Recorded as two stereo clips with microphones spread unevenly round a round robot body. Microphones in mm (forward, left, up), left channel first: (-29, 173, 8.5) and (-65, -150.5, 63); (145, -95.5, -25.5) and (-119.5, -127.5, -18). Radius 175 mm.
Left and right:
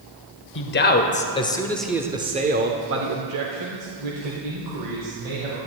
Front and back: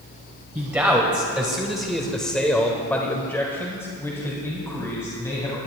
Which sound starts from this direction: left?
A man speaking, at 0.6 s.